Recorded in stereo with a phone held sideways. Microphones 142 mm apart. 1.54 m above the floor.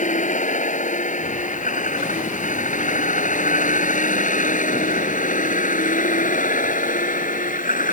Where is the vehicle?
60° left (ahead or behind); by 7.9 s 70° left (ahead or behind).